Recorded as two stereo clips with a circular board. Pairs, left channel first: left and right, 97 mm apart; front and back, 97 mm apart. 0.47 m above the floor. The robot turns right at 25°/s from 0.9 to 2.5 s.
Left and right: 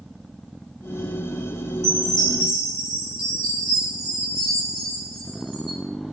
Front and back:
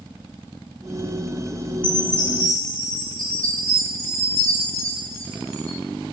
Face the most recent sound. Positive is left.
turn(degrees=80)